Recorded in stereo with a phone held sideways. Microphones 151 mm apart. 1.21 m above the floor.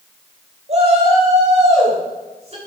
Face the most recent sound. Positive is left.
turn(degrees=-45)  # may be behind; listen again after turning